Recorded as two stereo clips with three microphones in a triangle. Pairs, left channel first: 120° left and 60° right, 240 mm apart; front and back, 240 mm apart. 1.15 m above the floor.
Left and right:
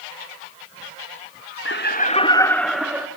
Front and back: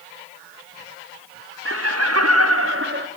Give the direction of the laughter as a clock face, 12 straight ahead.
7 o'clock.